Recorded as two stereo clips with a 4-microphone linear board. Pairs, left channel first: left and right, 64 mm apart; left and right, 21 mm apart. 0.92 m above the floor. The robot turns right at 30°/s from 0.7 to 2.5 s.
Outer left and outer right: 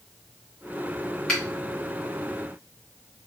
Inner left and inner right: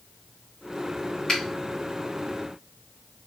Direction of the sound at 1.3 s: 10° left (ahead or behind).